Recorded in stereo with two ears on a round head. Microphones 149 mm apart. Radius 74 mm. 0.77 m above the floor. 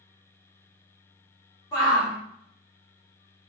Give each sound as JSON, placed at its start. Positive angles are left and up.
{"t": 1.7, "sound": "a shout", "side_deg": 25, "distance_m": 1.5}